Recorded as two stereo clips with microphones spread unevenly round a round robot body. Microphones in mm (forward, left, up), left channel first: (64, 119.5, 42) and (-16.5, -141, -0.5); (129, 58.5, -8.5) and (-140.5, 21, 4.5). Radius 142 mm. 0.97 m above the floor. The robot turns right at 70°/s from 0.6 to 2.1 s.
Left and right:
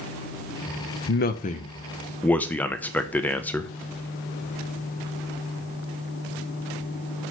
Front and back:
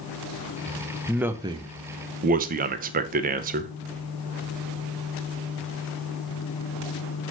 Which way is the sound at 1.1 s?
95° left.